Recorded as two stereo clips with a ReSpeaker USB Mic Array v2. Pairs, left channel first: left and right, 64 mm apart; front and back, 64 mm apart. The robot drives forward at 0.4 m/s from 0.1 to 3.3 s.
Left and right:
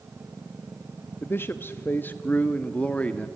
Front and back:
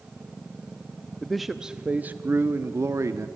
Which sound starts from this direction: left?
A man speaking, at 1.2 s.